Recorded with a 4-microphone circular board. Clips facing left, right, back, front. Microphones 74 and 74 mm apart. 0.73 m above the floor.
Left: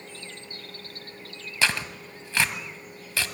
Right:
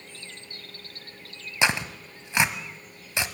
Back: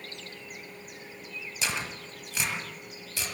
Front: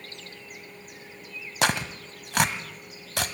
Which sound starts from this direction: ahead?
Tearing paper, at 1.6 s.